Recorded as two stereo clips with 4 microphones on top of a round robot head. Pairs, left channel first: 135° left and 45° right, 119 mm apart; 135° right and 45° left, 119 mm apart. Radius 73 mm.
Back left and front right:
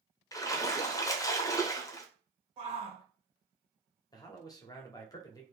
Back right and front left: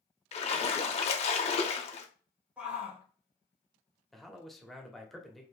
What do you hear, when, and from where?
0.3 s a splash: 165° right, 0.7 m
2.6 s a shout: 30° right, 1.7 m
4.1 s a man speaking: 140° left, 1.0 m